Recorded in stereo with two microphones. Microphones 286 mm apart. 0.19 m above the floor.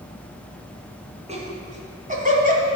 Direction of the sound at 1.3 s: 25° right (ahead or behind).